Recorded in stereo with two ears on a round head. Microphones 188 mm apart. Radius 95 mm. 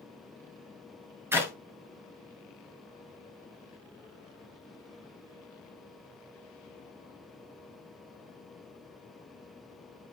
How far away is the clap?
About 3 m.